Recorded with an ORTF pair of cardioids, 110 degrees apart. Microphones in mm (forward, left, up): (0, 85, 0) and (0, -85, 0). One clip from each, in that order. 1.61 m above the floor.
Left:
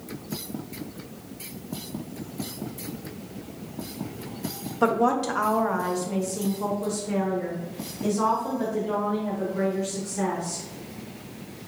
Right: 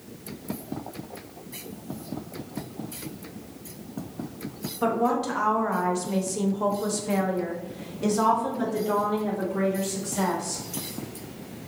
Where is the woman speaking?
30° left, 0.9 m; by 10.6 s 70° right, 3 m.